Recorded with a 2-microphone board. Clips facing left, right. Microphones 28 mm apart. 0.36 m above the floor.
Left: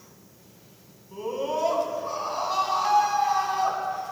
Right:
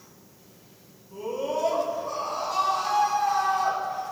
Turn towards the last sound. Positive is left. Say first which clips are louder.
# left 1 dB
turn(degrees=30)  # may be behind; listen again after turning